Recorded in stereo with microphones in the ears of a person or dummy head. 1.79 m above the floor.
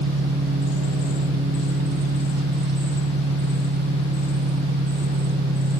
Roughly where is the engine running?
Right.